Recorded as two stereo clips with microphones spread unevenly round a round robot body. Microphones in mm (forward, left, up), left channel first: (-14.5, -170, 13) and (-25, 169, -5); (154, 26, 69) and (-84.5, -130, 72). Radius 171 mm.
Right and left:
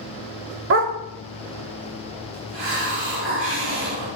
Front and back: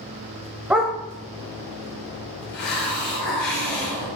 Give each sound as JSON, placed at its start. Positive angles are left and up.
{"t": 0.7, "sound": "a dog barking", "azimuth_deg": 130, "distance_m": 0.8}
{"t": 2.5, "sound": "a hiss", "azimuth_deg": 40, "distance_m": 4.5}